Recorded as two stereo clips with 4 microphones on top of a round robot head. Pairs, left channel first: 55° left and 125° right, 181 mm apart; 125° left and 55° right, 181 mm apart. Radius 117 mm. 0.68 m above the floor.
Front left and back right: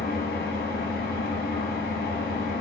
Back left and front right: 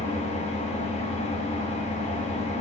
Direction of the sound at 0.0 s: 80° left.